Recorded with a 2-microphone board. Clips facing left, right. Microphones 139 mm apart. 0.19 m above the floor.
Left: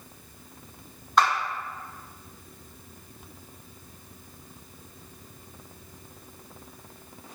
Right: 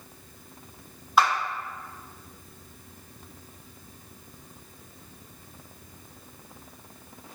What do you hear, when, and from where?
1.2 s a clap: 5° right (ahead or behind), 1.0 m